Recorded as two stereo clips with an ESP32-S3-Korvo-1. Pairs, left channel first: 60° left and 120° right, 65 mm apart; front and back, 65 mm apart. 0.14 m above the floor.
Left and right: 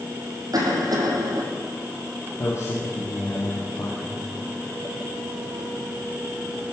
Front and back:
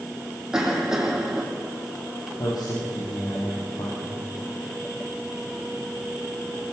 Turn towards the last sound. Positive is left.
turn(degrees=15)